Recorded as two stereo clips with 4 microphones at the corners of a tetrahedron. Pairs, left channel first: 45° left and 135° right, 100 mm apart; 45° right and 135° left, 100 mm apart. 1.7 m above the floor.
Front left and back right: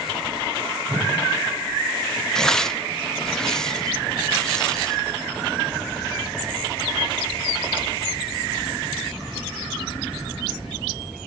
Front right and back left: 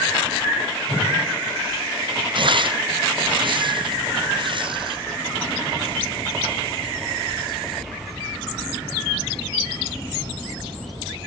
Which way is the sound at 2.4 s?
125° left.